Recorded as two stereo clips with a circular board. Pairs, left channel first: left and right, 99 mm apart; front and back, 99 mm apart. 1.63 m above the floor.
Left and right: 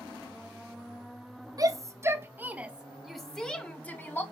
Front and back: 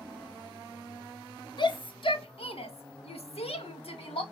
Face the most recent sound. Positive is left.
turn(degrees=20)